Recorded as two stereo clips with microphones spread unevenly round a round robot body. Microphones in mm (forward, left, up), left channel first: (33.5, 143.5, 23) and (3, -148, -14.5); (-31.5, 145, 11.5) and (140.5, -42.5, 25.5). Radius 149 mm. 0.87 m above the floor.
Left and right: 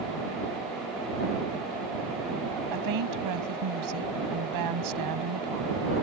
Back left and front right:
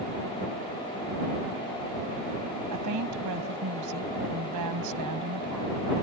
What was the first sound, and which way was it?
A woman speaking, 75° right.